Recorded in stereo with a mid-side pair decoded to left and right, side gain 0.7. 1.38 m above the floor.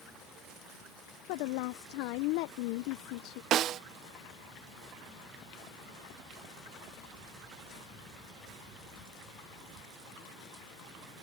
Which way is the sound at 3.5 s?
50° right.